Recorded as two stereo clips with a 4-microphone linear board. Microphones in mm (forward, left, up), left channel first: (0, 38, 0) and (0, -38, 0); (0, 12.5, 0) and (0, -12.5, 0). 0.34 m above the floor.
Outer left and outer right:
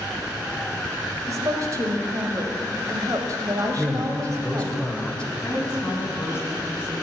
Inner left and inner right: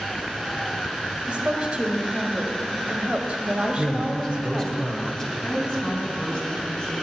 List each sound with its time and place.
1.3 s a woman speaking: 50° right (ahead or behind), 1.3 m
3.8 s a man speaking: 15° left (ahead or behind), 1.3 m
5.4 s a woman speaking: 30° left (ahead or behind), 2.5 m